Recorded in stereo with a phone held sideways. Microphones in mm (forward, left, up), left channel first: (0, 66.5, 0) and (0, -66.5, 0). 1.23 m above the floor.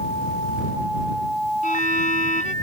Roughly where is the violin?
Left.